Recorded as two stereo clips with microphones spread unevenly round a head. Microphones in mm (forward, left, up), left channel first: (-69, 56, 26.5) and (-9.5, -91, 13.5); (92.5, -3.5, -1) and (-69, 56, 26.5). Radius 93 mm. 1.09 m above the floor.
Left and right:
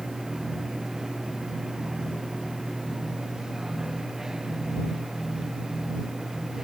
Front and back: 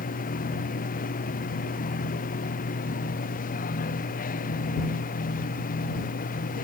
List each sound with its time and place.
0.0 s a machine running: 20° left